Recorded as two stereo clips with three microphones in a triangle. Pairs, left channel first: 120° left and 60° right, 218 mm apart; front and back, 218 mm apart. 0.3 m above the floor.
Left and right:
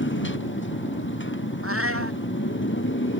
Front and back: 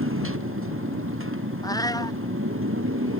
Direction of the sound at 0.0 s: 155° left.